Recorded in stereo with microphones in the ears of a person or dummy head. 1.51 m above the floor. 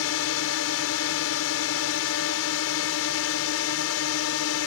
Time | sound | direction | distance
0.0 | a drone | 70° left (ahead or behind) | ?